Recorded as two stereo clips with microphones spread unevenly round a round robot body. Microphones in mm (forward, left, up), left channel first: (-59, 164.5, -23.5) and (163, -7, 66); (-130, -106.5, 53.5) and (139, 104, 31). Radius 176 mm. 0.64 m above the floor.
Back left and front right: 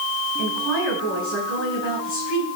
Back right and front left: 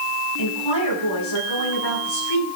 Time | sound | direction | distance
0.4 | a woman speaking | 165° right | 7.5 m